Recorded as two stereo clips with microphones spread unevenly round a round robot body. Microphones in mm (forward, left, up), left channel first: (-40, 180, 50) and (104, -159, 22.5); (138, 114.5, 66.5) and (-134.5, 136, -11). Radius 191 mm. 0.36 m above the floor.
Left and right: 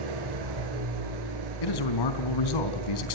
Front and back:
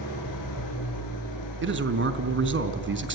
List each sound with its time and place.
0.0 s an engine running: 50° right, 6 m
1.6 s a man speaking: 140° left, 3.5 m